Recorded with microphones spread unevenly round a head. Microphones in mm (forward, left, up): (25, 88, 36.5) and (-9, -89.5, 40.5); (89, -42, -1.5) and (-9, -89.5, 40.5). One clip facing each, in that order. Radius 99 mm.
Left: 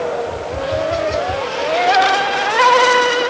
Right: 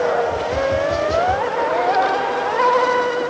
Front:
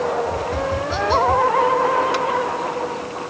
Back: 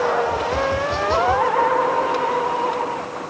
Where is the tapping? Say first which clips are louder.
Right 2 dB, back 2 dB; 85° right, 2.5 m.